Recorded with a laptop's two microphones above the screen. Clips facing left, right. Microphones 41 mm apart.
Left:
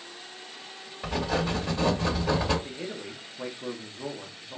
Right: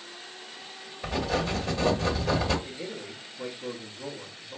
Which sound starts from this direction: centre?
Writing, at 1.0 s.